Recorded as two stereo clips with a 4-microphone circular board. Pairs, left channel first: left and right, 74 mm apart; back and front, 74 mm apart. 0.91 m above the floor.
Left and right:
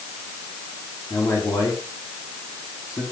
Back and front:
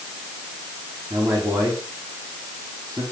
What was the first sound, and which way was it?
A man speaking, 40° left.